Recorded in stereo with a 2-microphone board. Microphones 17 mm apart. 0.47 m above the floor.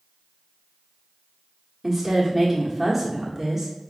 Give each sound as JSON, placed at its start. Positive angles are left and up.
{"t": 1.8, "sound": "a woman speaking", "side_deg": -25, "distance_m": 0.9}